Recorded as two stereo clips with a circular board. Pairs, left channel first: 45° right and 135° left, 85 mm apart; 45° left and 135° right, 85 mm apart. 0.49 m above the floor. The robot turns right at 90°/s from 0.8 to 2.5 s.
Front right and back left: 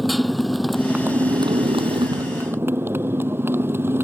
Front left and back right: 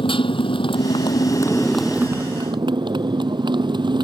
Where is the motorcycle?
45° left; by 4.0 s 160° right.